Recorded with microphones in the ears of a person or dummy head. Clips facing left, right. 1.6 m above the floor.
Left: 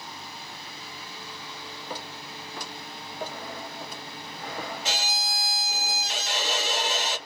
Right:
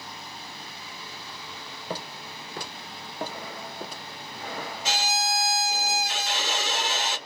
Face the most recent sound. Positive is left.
turn(degrees=-75)  # may be behind; listen again after turning